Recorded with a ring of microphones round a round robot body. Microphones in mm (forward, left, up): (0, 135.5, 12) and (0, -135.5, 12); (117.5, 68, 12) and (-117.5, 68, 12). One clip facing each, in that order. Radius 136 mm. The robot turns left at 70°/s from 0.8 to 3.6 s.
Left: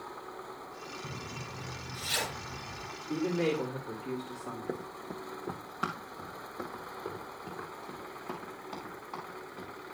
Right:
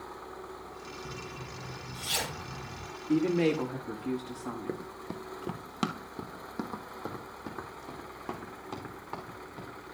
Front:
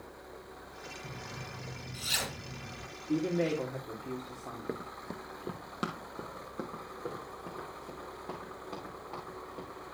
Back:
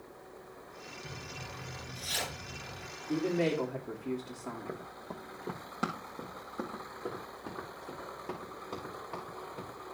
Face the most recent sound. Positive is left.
turn(degrees=-95)